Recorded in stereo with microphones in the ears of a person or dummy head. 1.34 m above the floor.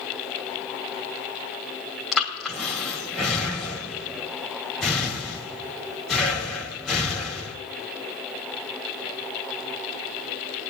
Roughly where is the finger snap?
I don't hear a finger snap.